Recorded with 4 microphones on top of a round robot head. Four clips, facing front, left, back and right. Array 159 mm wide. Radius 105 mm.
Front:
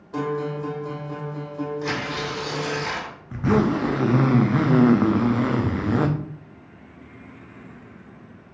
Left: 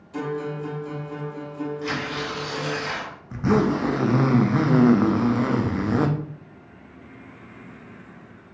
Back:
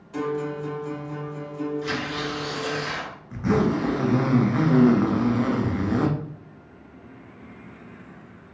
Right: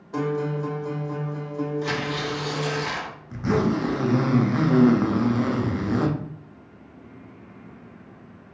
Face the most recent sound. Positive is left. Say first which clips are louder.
# left 2 dB, front 2 dB
turn(degrees=40)